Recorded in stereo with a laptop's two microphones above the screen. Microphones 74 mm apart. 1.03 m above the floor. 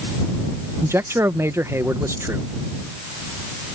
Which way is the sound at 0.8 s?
35° right (ahead or behind).